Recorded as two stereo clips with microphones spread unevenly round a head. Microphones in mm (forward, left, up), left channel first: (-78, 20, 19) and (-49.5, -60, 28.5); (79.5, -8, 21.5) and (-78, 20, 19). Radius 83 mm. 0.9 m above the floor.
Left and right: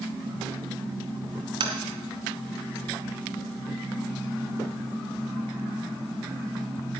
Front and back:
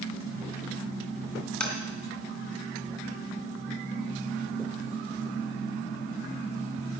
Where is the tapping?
95° right, 2.5 m.